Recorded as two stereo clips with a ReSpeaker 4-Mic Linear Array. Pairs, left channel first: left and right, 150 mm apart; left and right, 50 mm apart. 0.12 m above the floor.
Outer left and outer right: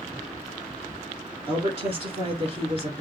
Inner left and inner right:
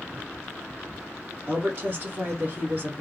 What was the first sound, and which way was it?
A woman speaking, 40° right (ahead or behind).